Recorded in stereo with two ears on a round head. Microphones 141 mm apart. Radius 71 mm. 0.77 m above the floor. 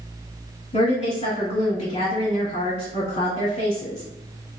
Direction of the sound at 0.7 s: 40° left (ahead or behind).